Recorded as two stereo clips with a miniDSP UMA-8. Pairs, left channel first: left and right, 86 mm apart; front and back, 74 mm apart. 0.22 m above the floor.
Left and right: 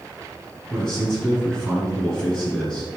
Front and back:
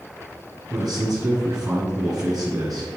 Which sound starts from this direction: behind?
A man speaking, at 0.7 s.